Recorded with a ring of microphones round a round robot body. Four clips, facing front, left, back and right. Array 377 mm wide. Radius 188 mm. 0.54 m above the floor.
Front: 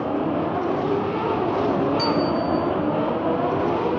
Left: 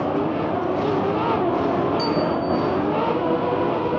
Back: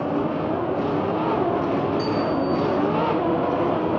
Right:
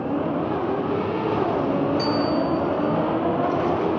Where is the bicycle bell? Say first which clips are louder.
Even, front 1 dB; straight ahead, 7 m.